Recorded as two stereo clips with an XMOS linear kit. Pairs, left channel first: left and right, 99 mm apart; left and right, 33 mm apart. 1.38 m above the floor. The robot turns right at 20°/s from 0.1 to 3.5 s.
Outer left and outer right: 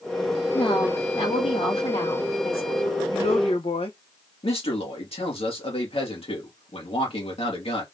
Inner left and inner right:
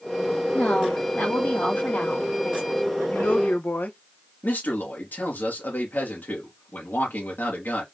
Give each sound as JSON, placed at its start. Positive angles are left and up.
{"t": 0.5, "sound": "a woman speaking", "azimuth_deg": 60, "distance_m": 2.5}
{"t": 3.1, "sound": "a woman speaking", "side_deg": 80, "distance_m": 1.3}
{"t": 4.4, "sound": "a man speaking", "side_deg": 80, "distance_m": 2.5}